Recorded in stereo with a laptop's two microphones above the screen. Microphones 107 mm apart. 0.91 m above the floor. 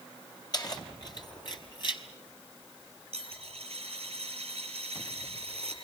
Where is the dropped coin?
65° right (ahead or behind), 8.5 m.